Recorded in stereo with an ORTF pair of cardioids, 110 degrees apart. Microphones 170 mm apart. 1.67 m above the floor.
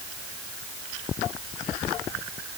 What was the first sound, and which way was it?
Only background noise.